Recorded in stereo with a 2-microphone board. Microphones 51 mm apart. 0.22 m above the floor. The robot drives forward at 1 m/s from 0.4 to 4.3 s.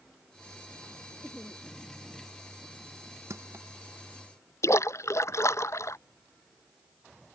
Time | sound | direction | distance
1.2 | laughter | 20° left (ahead or behind) | ?
3.3 | crushing | 65° right (ahead or behind) | ?
4.6 | a splash | 65° left (ahead or behind) | ?